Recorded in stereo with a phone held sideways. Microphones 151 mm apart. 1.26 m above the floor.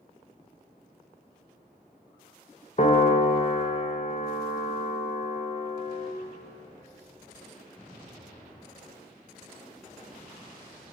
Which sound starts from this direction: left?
A piano, at 2.8 s.